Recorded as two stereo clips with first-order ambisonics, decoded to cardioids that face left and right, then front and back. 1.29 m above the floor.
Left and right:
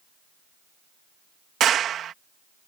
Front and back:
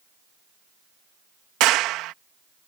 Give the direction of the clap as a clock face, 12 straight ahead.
5 o'clock.